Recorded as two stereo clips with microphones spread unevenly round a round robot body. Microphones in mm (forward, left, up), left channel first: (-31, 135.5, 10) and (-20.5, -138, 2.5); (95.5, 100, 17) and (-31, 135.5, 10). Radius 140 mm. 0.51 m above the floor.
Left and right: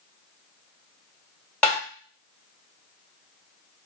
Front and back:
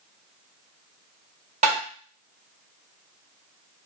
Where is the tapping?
Straight behind, 1.8 m.